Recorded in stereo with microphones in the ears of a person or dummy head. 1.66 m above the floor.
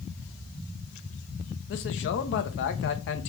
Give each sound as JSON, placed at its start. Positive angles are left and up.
{"t": 1.7, "sound": "a man speaking", "side_deg": 50, "distance_m": 0.7}